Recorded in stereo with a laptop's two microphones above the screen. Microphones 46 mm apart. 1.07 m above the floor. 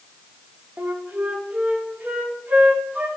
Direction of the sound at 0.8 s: 35° right (ahead or behind).